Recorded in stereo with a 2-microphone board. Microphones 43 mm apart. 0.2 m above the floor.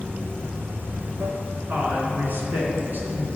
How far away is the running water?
About 1.6 m.